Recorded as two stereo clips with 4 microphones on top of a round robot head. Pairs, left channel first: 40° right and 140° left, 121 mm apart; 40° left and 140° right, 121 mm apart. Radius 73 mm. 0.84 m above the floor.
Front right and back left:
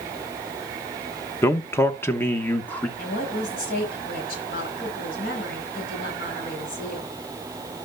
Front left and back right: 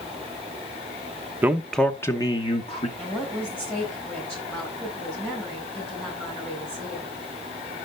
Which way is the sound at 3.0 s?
40° right.